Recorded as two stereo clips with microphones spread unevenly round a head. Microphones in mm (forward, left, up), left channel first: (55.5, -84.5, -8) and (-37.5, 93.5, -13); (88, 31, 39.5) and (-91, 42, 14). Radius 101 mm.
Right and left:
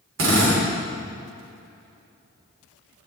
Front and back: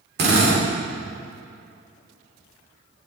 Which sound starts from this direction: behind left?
A drill, at 0.2 s.